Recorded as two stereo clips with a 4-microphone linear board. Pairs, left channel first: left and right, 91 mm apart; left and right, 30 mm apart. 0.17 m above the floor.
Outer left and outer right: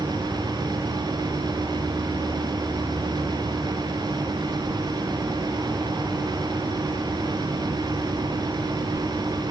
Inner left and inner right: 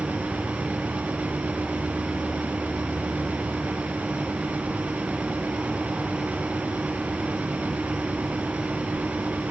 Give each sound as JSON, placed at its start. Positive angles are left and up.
{"t": 0.0, "sound": "an insect", "side_deg": -40, "distance_m": 5.5}